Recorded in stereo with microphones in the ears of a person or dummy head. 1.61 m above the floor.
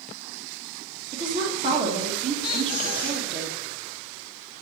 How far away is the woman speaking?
About 1.9 m.